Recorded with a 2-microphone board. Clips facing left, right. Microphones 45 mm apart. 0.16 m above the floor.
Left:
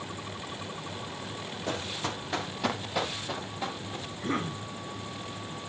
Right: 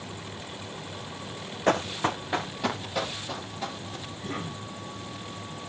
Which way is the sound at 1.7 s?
70° right (ahead or behind).